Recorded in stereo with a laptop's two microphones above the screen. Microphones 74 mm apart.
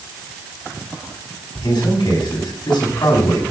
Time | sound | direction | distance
1.6 | a man speaking | 75° left (ahead or behind) | 6.5 m